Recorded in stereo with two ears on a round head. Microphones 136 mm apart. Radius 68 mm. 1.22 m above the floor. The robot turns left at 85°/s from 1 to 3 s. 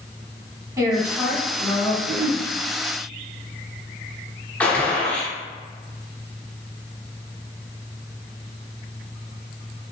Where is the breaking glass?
I don't hear breaking glass.